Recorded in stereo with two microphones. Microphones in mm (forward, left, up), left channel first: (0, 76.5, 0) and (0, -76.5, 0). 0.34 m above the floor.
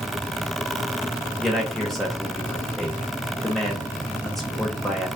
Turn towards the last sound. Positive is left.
turn(degrees=0)  # may be behind; listen again after turning